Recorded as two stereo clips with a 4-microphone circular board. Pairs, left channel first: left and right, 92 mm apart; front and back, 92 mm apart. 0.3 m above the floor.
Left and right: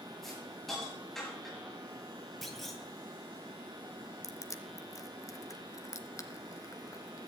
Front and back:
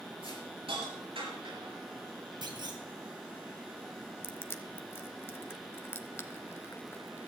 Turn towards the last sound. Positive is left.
turn(degrees=55)